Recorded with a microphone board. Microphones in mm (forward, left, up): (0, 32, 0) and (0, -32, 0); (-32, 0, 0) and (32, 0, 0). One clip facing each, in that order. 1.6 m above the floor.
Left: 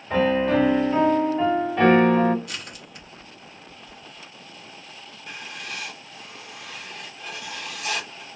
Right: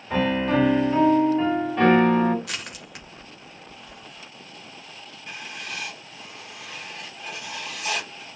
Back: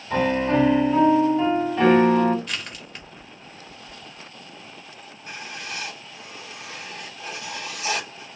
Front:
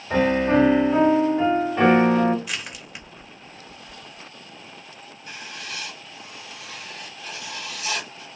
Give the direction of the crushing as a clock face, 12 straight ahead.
3 o'clock.